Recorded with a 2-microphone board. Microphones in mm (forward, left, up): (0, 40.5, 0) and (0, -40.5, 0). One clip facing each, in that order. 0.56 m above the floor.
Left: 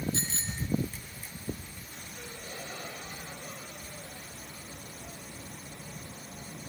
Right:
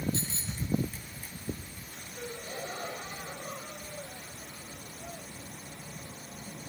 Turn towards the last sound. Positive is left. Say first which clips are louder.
# right 5 dB
turn(degrees=-35)  # may be behind; listen again after turning